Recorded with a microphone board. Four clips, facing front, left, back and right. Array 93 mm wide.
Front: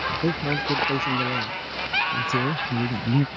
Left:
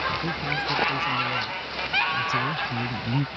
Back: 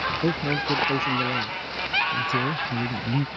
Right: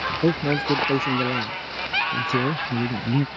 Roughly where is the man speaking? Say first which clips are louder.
Right 7 dB, even; right.